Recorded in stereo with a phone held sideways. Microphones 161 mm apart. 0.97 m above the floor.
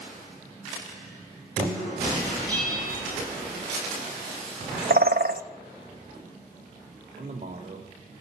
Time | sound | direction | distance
2.5 | a bell | 10° left (ahead or behind) | 5.5 m
4.9 | a bird | 70° right (ahead or behind) | 0.6 m
7.2 | a man speaking | 45° right (ahead or behind) | 3.5 m